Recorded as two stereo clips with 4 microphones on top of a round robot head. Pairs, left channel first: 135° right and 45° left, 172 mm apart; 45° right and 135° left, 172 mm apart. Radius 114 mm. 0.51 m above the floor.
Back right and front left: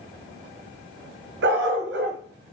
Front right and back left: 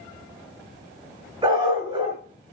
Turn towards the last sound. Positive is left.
turn(degrees=70)